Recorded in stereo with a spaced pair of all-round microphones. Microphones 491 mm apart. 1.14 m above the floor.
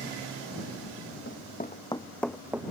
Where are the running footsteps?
25° left (ahead or behind); by 2.6 s 5° right (ahead or behind).